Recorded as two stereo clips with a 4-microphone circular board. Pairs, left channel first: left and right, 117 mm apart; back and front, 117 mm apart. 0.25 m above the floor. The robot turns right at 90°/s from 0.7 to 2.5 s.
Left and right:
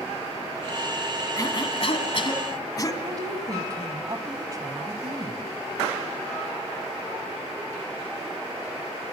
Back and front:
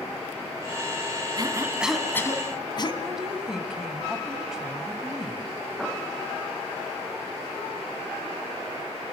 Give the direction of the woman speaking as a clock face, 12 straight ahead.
3 o'clock.